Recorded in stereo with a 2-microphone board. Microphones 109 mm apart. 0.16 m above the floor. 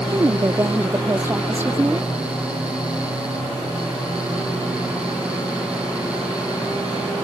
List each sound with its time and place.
0.1 s a woman speaking: 30° right (ahead or behind); by 2.1 s 15° right (ahead or behind)